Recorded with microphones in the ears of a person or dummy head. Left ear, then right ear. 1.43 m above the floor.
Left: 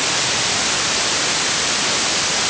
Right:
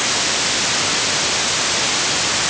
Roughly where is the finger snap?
I don't hear a finger snap.